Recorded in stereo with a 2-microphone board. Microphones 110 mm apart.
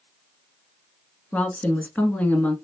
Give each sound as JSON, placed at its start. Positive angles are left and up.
{"t": 1.3, "sound": "a woman speaking", "side_deg": 15, "distance_m": 1.1}